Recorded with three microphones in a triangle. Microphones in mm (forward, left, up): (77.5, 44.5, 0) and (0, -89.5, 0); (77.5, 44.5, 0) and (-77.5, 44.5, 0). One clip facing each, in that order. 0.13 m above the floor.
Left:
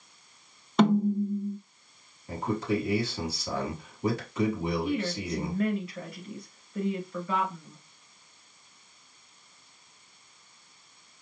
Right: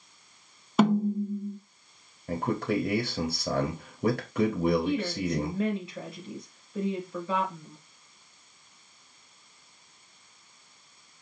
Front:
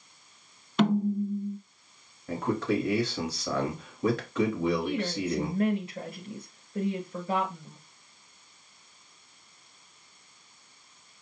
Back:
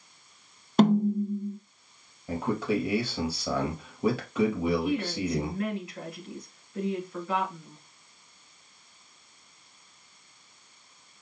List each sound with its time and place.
0.8 s a snare drum: 160° left, 1.0 m
2.3 s a man speaking: 100° right, 2.5 m
4.8 s a woman speaking: 55° right, 2 m